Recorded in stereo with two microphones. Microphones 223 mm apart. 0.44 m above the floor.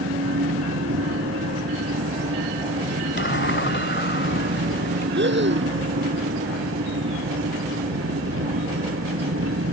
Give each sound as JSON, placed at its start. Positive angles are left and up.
{"t": 0.0, "sound": "an engine running", "side_deg": -90}
{"t": 3.2, "sound": "a sliding door", "side_deg": 55}
{"t": 5.1, "sound": "breathing", "side_deg": -55}